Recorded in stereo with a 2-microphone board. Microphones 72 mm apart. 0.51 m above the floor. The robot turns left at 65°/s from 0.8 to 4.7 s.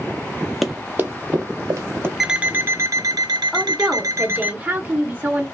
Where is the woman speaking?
5° left (ahead or behind), 0.7 m; by 5.5 s 25° right (ahead or behind), 0.7 m.